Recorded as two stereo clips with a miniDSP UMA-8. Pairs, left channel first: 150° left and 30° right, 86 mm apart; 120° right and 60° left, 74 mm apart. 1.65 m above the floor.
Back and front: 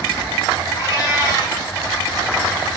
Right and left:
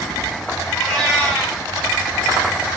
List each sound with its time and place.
0.8 s a cat meowing: 165° left, 1.2 m